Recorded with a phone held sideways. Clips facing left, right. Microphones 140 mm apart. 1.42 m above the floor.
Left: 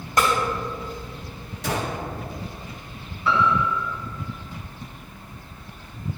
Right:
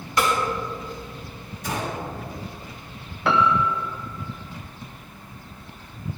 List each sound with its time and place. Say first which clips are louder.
0.2 s a snare drum: left 1 dB; 45° left (ahead or behind), 3 m
1.6 s a gunshot: left 2 dB; 80° left, 1.5 m
3.2 s a piano: right 1 dB; 70° right (ahead or behind), 0.7 m